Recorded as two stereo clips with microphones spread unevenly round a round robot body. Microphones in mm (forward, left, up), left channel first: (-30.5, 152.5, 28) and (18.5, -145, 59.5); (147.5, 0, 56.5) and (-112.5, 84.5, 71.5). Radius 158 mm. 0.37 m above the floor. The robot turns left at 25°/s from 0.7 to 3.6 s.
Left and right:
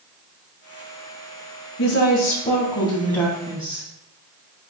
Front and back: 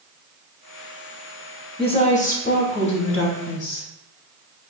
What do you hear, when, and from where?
1.8 s a woman speaking: 50° left, 3 m; by 3.9 s 5° left, 3 m